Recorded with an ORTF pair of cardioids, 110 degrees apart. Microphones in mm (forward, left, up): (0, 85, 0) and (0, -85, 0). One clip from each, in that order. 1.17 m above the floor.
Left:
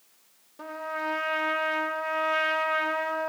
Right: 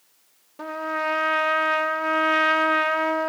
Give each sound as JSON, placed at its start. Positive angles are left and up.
{"t": 0.6, "sound": "a trumpet", "azimuth_deg": -25, "distance_m": 0.6}